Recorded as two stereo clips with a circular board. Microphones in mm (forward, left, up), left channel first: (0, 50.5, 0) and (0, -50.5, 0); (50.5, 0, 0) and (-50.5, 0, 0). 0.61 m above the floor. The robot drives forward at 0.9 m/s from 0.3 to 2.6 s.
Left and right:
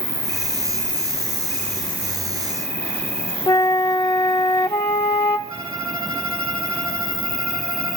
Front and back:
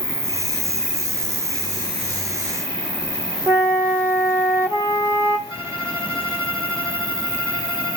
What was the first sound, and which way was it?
An insect, 30° left.